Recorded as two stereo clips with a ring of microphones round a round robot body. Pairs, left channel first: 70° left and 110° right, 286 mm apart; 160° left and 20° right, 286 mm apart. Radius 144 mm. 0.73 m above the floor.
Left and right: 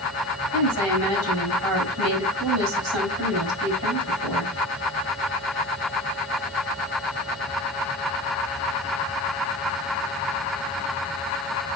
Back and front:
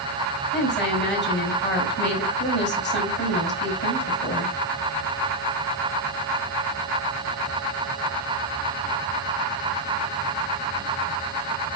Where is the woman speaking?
150° right, 5 m.